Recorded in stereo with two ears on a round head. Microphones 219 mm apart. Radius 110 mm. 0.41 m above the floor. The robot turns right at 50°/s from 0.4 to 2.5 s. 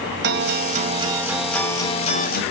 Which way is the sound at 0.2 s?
50° right.